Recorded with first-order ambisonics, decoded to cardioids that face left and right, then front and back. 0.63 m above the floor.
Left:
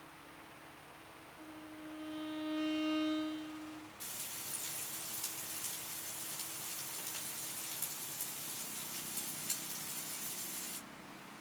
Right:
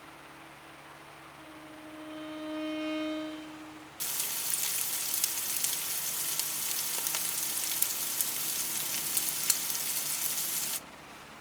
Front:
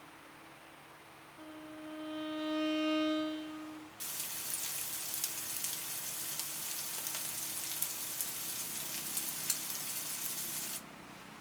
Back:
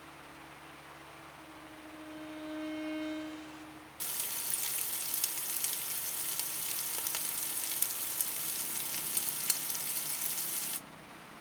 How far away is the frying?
About 0.5 m.